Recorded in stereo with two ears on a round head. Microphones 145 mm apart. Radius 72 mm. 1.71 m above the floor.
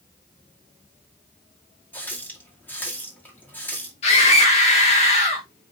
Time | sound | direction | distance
1.9 | a running tap | 10° left (ahead or behind) | 2 m
4.0 | a scream | 40° left (ahead or behind) | 1.8 m